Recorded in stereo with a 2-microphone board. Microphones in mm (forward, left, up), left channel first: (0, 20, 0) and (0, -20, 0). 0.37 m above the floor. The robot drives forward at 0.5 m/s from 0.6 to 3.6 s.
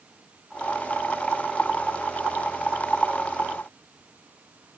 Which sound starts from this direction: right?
Running water, at 0.0 s.